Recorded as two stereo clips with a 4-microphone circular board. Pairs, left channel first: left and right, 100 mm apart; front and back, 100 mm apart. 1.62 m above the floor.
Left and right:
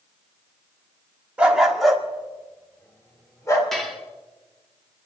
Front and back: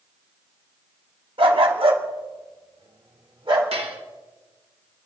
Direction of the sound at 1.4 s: 165° right.